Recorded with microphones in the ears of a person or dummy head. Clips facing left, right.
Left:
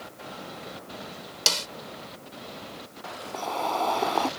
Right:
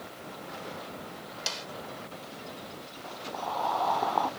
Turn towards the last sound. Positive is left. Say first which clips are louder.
# left 2 dB
turn(degrees=35)  # may be behind; listen again after turning